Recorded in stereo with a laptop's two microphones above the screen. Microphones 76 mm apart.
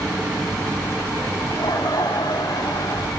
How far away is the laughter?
About 3.5 m.